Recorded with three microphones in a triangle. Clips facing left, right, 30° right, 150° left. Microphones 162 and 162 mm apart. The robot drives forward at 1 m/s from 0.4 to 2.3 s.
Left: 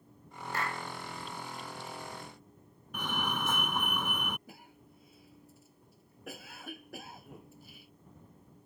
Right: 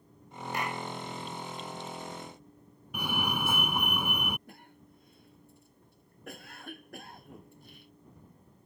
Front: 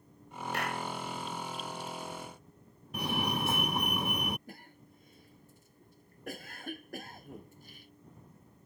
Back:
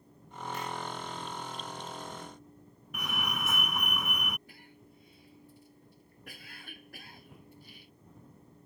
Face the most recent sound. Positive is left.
turn(degrees=5)